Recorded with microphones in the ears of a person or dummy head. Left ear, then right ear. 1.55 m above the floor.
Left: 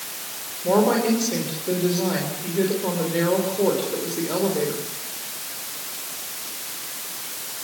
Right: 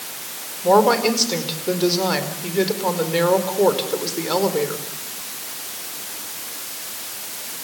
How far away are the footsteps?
I don't hear footsteps.